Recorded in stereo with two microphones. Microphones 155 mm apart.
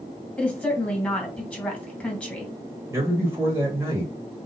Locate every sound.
0.4 s a woman speaking: 10° left (ahead or behind), 2 m
2.9 s a man speaking: 20° right (ahead or behind), 1.1 m